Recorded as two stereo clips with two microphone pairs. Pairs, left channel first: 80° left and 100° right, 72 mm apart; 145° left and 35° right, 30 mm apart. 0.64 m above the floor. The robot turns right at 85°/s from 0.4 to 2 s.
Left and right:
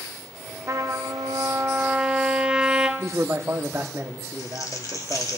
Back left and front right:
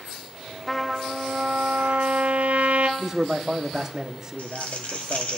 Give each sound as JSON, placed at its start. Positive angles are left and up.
{"t": 0.7, "sound": "a trumpet", "azimuth_deg": -140, "distance_m": 0.8}
{"t": 3.0, "sound": "a man speaking", "azimuth_deg": -95, "distance_m": 0.9}
{"t": 4.4, "sound": "crumpling", "azimuth_deg": 115, "distance_m": 1.5}